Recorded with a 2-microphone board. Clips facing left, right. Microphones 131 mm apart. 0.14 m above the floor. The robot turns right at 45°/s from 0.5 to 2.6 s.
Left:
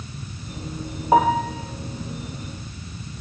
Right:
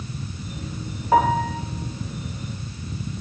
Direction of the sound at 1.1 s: 20° left (ahead or behind).